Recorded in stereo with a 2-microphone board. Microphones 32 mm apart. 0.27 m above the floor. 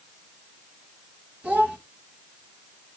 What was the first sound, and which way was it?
A child speaking, 45° right (ahead or behind).